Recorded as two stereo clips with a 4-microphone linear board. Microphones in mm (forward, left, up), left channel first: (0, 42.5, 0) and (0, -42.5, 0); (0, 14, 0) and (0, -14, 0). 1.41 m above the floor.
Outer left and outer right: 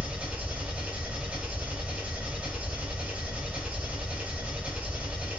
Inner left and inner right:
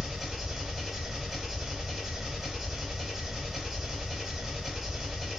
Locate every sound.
0.0 s an engine running: 20° right (ahead or behind), 1.9 m